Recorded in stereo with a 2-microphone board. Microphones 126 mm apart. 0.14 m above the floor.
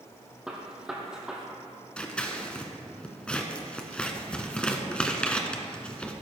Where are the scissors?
10° left (ahead or behind), 1.1 m.